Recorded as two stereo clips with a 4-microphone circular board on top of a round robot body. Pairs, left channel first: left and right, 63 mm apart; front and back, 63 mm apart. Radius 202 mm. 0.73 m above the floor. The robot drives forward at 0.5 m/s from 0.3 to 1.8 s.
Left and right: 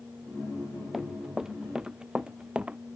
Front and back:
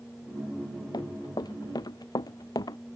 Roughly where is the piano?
No piano in this recording.